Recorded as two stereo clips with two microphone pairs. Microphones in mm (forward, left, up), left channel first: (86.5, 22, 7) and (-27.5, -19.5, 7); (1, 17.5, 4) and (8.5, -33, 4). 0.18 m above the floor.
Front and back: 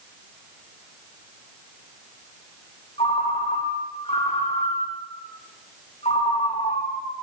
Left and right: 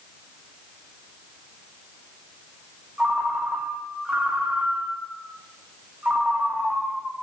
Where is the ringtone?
15° right, 4.5 m.